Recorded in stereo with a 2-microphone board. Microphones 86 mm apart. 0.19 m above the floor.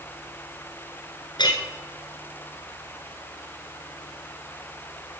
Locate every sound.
1.4 s a clink: 60° left (ahead or behind), 1.8 m